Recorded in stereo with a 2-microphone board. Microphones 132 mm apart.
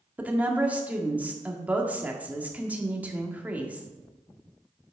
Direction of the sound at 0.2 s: 10° right (ahead or behind).